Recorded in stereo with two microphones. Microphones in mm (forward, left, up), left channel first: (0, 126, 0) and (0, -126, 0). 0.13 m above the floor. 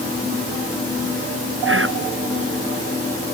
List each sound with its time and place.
1.6 s whispering: 55° right (ahead or behind)